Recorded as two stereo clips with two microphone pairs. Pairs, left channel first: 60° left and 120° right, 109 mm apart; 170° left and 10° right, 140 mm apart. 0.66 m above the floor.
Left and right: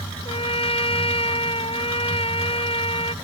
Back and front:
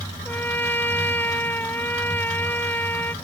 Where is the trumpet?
95° left.